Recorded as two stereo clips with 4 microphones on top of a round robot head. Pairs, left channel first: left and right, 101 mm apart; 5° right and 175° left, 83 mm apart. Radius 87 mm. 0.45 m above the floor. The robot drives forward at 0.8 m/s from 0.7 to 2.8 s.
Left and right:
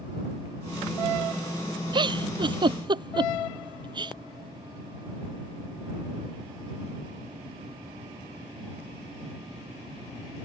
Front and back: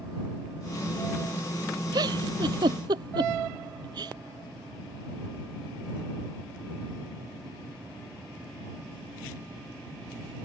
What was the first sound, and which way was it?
A giggle, 130° right.